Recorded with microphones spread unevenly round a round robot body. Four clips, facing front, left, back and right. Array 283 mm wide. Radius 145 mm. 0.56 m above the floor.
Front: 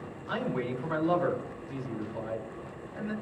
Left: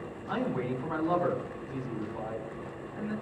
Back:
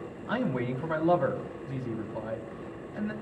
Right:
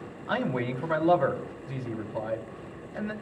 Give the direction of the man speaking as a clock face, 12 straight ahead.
4 o'clock.